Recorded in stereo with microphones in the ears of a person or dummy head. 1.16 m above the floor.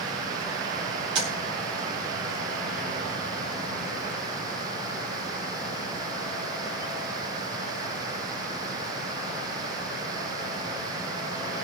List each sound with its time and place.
1.1 s tapping: 35° right (ahead or behind), 5 m